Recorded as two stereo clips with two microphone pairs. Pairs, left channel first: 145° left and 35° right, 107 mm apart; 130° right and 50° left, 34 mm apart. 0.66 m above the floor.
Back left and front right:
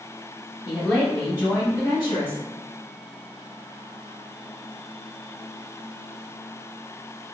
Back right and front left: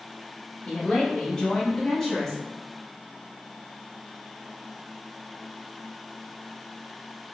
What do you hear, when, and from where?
0.7 s a woman speaking: 100° right, 0.9 m; by 2.4 s 135° left, 1.4 m